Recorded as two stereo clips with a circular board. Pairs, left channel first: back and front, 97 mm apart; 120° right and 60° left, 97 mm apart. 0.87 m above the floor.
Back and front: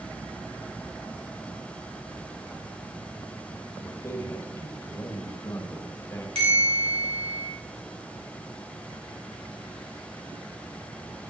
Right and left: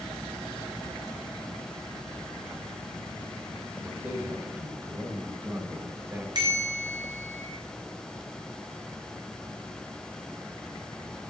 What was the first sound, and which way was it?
A man speaking, 120° left.